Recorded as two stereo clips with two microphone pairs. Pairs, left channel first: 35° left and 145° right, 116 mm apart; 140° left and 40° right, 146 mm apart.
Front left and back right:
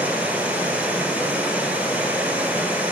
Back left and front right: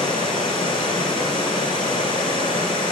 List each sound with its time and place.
0.0 s running water: 145° left, 1.1 m